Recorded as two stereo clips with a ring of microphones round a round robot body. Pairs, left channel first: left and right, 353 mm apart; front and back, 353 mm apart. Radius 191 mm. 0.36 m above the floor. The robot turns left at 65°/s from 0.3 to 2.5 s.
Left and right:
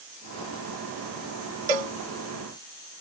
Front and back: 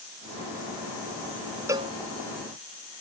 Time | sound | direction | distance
1.7 | a cowbell | 95° right | ?